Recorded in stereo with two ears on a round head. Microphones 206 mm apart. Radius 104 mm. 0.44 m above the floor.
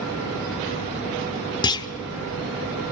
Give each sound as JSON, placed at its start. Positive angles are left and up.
{"t": 1.6, "sound": "a clunk", "side_deg": 20, "distance_m": 0.9}